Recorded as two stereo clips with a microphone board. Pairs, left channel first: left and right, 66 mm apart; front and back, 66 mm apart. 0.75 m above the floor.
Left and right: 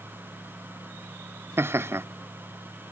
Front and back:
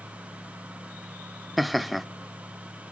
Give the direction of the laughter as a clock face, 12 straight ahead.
3 o'clock.